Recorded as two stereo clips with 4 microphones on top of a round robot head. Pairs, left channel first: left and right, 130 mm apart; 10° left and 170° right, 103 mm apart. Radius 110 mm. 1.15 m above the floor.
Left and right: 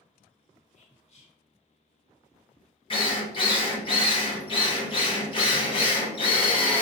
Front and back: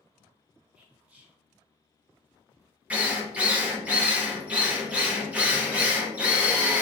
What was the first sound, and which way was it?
Whispering, 115° left.